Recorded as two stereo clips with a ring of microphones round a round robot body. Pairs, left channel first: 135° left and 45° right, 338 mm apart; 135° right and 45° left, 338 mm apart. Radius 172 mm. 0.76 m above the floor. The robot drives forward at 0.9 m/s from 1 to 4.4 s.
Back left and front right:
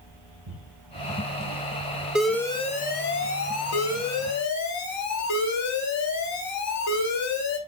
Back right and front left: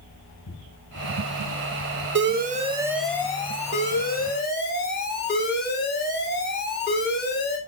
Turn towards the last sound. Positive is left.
turn(degrees=165)